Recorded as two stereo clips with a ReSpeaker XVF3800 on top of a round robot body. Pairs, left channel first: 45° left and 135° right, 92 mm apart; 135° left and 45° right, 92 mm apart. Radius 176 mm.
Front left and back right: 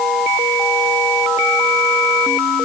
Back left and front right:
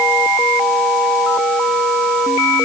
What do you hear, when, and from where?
Only background noise.